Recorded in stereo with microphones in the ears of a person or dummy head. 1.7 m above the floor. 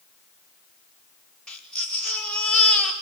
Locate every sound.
1.5 s a baby crying: 5° left (ahead or behind), 4 m